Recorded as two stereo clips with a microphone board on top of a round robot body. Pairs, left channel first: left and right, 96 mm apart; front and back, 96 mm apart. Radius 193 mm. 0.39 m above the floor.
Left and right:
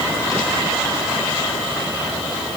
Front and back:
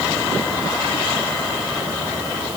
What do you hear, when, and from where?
Only background noise.